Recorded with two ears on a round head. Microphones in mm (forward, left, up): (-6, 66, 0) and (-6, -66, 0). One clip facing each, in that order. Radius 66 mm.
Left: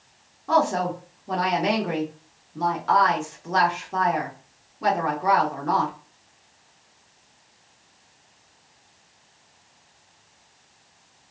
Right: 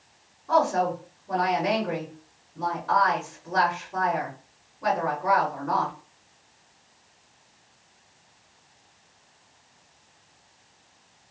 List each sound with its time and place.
0.5 s a woman speaking: 85° left, 1.7 m